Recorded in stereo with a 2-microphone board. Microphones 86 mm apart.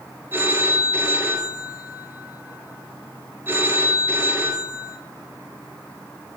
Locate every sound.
0.3 s a phone ringing: 25° right (ahead or behind), 1.3 m